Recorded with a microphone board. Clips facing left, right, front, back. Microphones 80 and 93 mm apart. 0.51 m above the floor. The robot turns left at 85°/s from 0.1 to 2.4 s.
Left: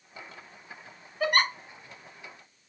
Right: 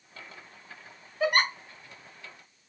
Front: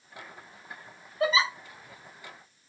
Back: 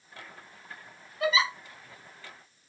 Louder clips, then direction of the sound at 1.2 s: Even, front 1 dB; 5° left.